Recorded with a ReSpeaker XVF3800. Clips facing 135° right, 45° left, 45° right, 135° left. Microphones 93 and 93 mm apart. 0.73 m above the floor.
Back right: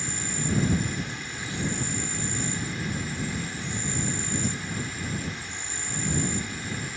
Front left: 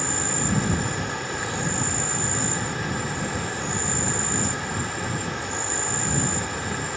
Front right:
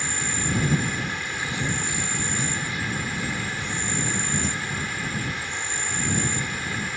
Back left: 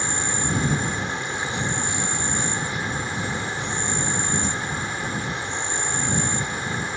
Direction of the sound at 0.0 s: 70° left.